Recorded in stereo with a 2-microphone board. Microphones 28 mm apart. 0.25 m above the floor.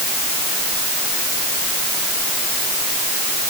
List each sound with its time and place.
Only background noise.